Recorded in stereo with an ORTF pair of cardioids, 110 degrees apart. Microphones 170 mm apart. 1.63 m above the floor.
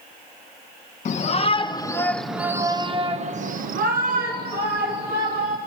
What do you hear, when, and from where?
1.1 s a shout: 45° left, 1.6 m; by 5.6 s 75° right, 3 m